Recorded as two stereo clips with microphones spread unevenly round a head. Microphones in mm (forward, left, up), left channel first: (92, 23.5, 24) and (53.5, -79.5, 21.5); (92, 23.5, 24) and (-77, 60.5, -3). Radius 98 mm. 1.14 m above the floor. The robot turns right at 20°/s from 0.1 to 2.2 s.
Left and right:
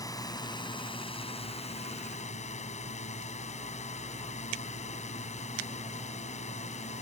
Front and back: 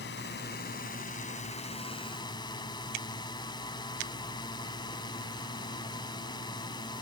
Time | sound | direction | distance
0.0 | a drone | 10° left | ?